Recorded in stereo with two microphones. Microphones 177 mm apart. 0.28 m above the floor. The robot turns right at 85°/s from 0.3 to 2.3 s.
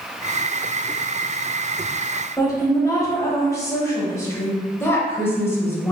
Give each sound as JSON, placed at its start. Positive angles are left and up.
{"t": 2.4, "sound": "a woman speaking", "side_deg": 20, "distance_m": 1.3}
{"t": 4.8, "sound": "a woman speaking", "side_deg": 15, "distance_m": 0.9}